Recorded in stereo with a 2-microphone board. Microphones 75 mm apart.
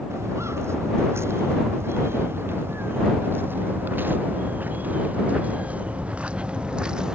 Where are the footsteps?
35° right (ahead or behind); by 7.2 s 10° right (ahead or behind).